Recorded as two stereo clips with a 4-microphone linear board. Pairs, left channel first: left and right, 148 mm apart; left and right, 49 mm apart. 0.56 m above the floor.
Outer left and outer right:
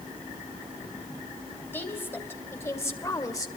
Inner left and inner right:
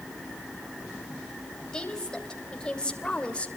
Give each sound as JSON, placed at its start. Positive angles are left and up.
{"t": 1.7, "sound": "a woman speaking", "side_deg": 15, "distance_m": 3.5}